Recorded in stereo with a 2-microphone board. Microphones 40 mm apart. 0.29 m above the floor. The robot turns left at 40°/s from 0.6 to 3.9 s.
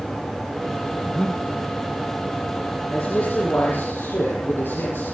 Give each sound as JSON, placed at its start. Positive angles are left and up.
{"t": 1.0, "sound": "breathing", "side_deg": 25, "distance_m": 2.5}
{"t": 2.9, "sound": "a man speaking", "azimuth_deg": 145, "distance_m": 9.5}